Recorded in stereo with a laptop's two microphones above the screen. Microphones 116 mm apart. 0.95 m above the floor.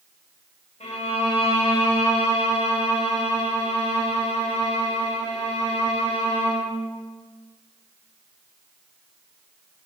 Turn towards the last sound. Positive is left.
turn(degrees=75)  # may be behind; listen again after turning